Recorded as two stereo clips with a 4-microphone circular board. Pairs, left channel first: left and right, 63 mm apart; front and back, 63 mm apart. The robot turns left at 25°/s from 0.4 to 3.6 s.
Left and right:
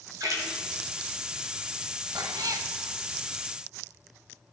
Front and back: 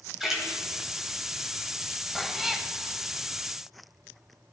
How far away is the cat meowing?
About 0.5 m.